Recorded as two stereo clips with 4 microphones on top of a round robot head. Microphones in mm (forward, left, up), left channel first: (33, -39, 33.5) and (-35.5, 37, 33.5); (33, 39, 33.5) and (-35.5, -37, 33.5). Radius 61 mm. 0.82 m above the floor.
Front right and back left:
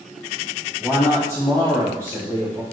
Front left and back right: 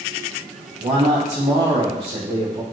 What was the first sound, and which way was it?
A man speaking, 120° right.